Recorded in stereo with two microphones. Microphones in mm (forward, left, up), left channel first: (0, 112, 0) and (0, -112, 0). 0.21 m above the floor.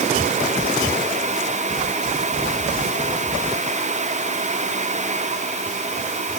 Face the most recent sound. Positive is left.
No sound to turn to.